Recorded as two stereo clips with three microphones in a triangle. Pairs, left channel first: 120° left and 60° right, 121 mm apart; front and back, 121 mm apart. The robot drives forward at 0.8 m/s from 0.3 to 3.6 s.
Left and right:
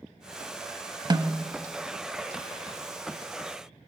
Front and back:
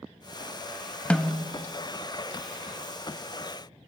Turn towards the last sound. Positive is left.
turn(degrees=-170)